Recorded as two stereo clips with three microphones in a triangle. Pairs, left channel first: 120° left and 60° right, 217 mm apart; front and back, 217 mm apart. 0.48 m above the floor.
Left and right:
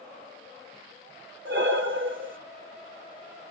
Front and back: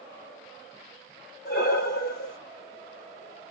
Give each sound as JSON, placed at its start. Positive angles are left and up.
{"t": 1.4, "sound": "breathing", "azimuth_deg": -40, "distance_m": 1.3}